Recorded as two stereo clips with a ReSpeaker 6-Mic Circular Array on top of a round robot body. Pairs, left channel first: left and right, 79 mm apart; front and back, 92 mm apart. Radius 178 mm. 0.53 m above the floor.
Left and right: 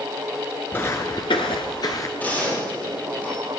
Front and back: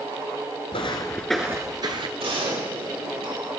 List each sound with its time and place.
0.7 s footsteps: 25° left, 0.7 m; by 2.1 s 145° left, 0.8 m
2.2 s a gunshot: 160° left, 8 m